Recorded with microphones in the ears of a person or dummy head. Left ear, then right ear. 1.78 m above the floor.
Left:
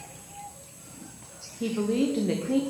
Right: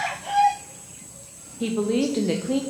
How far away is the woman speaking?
About 0.5 m.